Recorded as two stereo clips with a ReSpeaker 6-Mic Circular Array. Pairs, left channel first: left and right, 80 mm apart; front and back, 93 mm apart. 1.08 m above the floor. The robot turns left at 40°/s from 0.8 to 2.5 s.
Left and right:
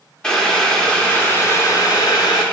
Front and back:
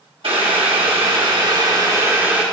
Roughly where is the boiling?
Behind.